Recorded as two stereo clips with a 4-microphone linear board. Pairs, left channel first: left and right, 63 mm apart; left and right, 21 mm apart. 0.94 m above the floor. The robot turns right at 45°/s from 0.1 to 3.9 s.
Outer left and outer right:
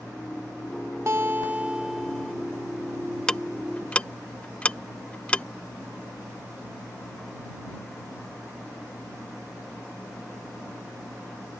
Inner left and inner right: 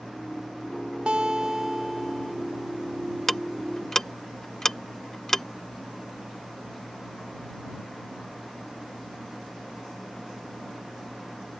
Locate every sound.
1.1 s a guitar: 50° right; by 2.4 s 10° left
3.3 s ticking: 10° left (ahead or behind); by 5.5 s 20° left (ahead or behind)